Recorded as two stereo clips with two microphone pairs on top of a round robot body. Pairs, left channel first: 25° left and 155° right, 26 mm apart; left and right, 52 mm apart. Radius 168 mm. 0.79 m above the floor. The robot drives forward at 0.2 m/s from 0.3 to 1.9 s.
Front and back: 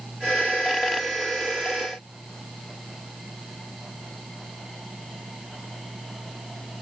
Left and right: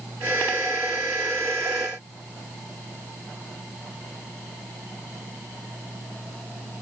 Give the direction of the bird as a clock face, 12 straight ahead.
I don't hear a bird.